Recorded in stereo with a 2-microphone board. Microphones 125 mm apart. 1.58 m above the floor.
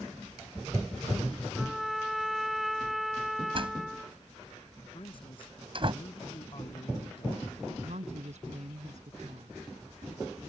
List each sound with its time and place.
1.6 s a trumpet: centre (ahead or behind)
3.5 s a door slam: 45° right (ahead or behind)
4.9 s a man speaking: 45° left (ahead or behind)
7.8 s a woman speaking: 65° right (ahead or behind)